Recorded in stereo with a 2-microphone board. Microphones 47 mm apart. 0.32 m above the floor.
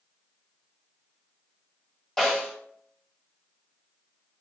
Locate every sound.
2.2 s a snare drum: 10° left (ahead or behind), 2.0 m